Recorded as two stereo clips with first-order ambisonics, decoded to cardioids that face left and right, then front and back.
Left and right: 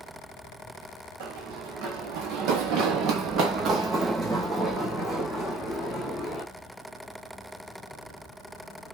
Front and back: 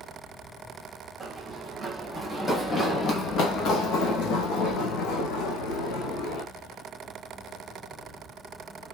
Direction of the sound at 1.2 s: 105° right.